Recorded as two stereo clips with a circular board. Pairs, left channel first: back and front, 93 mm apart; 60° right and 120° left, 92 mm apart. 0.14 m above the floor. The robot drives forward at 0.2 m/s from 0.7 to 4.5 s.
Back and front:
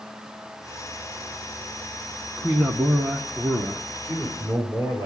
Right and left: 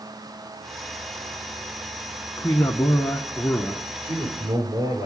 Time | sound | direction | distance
2.4 | a man speaking | 85° right | 1.3 m
4.0 | a man speaking | 140° left | 6 m